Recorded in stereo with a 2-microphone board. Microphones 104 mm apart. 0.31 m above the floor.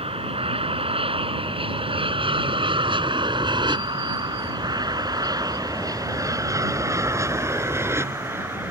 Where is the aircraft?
65° right (ahead or behind); by 8.7 s 20° right (ahead or behind).